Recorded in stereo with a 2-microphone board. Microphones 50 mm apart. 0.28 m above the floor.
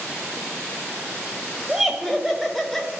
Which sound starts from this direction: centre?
Laughter, at 1.7 s.